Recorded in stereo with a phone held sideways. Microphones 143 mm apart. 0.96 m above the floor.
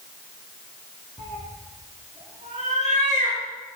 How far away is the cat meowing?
About 2.5 m.